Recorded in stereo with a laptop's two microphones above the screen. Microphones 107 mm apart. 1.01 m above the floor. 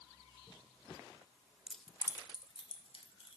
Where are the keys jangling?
10° right (ahead or behind), 0.6 m; by 3.4 s 65° left (ahead or behind), 2.5 m.